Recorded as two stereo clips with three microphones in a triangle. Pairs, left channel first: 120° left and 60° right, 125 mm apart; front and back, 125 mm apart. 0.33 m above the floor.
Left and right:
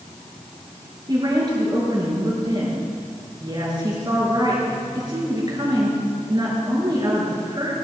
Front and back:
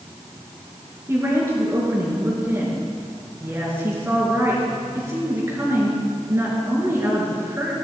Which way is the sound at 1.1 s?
110° right.